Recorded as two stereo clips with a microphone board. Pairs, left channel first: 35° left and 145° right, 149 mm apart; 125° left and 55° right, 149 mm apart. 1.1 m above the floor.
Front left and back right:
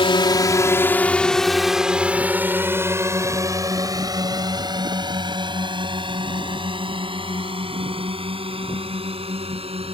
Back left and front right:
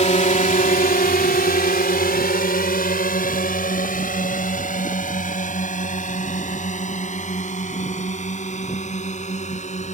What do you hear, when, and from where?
0.0 s a drone: 85° left; by 9.9 s 165° left